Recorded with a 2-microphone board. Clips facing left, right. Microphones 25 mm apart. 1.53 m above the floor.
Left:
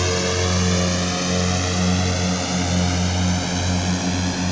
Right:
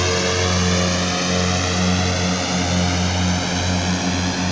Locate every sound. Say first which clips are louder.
0.0 s a drone: right 2 dB; 15° right (ahead or behind)